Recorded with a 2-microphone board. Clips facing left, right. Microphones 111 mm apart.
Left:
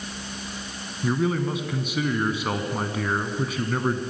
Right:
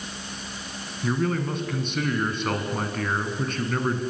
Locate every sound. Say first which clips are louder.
1.0 s a man speaking: left 2 dB; 5° left (ahead or behind), 1.7 m